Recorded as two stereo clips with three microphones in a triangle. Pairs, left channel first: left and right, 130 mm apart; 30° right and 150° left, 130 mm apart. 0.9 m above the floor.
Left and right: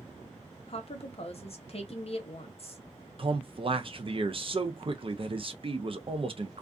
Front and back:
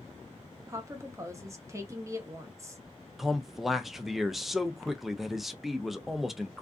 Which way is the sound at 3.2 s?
120° right.